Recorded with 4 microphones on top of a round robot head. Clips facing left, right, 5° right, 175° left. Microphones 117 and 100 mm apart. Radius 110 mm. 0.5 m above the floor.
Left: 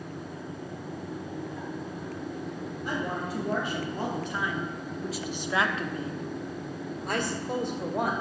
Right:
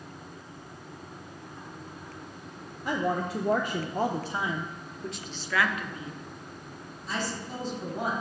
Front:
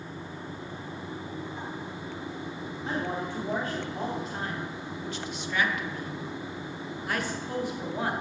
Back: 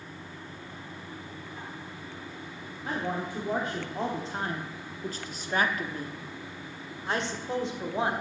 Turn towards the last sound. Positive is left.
turn(degrees=110)